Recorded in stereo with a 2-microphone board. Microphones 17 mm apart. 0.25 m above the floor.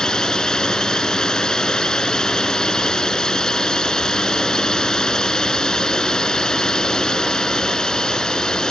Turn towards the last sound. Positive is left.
turn(degrees=50)  # may be behind; listen again after turning